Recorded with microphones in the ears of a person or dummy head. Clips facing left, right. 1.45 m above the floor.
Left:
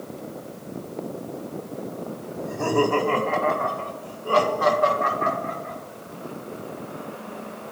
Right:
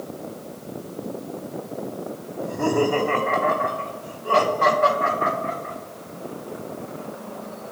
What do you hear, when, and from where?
2.4 s laughter: 5° left (ahead or behind), 1.4 m; by 5.8 s 40° right (ahead or behind), 5.5 m